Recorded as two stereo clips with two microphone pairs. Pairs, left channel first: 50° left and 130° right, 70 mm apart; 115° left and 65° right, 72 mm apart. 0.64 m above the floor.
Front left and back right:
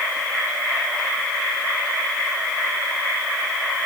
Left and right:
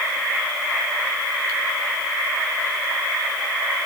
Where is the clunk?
No clunk in this recording.